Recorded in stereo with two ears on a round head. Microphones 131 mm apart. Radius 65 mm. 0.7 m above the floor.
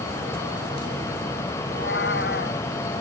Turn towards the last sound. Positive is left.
turn(degrees=85)